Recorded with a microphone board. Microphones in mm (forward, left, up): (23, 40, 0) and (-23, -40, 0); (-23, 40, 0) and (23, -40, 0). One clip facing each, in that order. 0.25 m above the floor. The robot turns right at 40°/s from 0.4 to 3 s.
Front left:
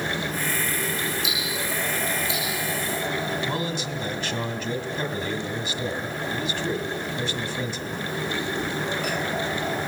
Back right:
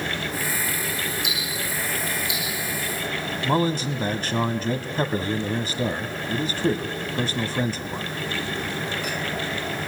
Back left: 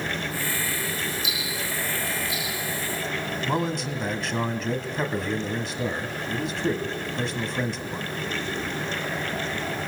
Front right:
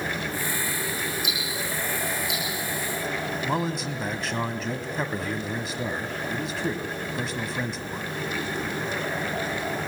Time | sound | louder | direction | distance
1.2 | ticking | front left 1 dB, even | 90° right | 9.5 m
3.4 | a man speaking | back right 6 dB, back left 2 dB | 145° right | 1.6 m